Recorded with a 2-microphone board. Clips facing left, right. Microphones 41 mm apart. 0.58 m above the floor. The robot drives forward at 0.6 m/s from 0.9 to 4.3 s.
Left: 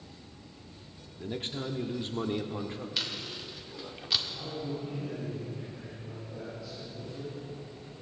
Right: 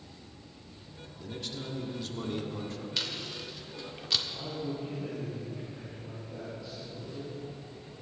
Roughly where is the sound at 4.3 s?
Centre.